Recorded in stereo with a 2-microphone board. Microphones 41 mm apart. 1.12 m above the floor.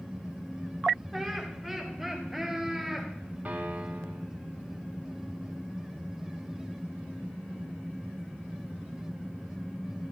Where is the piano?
40° right (ahead or behind), 2 m.